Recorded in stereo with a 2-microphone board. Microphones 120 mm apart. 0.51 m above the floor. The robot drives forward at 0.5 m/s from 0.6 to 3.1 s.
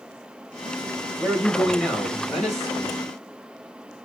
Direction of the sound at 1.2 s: 5° left (ahead or behind).